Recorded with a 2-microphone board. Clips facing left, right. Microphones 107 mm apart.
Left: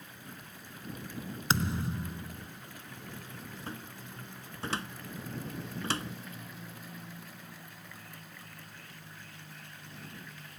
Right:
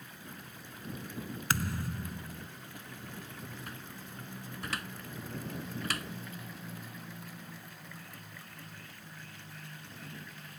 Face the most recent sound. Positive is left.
turn(degrees=30)  # may be behind; listen again after turning